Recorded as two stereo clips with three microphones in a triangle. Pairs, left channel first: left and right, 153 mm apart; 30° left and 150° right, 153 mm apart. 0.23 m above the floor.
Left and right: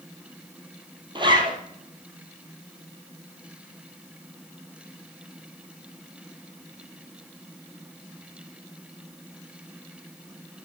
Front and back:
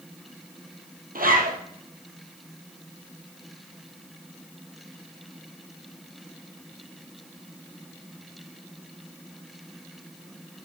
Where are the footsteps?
I don't hear footsteps.